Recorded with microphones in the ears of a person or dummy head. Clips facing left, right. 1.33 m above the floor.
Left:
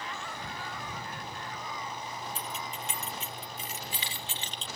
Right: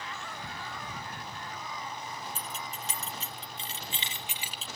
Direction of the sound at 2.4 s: 40° right (ahead or behind).